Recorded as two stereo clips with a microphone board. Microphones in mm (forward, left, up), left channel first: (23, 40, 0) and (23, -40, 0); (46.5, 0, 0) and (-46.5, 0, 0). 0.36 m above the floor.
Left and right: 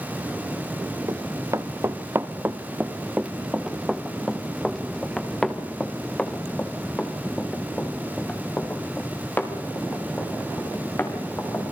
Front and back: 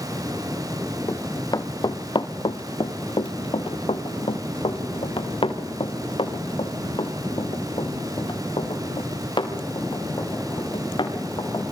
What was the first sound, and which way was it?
Running footsteps, 50° right.